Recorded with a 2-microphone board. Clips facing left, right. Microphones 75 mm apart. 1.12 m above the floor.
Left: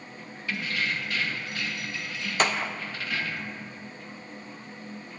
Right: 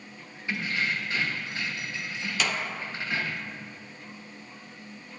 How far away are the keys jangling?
About 0.8 m.